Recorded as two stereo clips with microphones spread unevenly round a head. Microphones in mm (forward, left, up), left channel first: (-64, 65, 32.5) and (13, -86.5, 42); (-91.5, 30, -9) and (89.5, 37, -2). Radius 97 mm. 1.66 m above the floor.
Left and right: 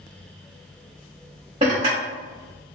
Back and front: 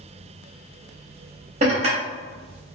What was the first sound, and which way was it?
Dishes clattering, 25° right.